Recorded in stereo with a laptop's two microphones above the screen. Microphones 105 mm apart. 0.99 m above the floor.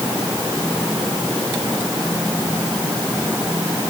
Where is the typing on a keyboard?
I don't hear typing on a keyboard.